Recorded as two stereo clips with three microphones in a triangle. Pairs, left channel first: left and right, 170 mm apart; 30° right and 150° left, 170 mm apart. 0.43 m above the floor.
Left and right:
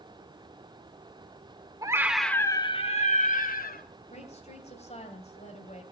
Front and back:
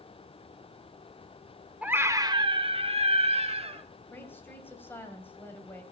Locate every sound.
1.8 s a scream: 135° right, 0.9 m; by 3.8 s 100° left, 1.6 m
4.1 s a woman speaking: 45° left, 3 m